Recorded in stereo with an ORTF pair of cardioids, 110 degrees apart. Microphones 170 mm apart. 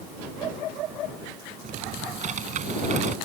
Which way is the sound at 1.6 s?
45° right.